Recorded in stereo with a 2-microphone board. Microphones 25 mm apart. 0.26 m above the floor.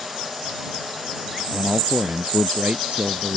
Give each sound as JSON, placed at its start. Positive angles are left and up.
{"t": 1.5, "sound": "a man speaking", "side_deg": -50}